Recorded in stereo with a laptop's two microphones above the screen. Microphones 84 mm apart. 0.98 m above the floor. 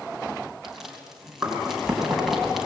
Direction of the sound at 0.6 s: 5° right (ahead or behind).